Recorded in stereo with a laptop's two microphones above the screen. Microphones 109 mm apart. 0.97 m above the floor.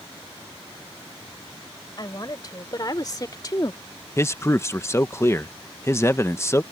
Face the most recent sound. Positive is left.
turn(degrees=25)  # may be behind; listen again after turning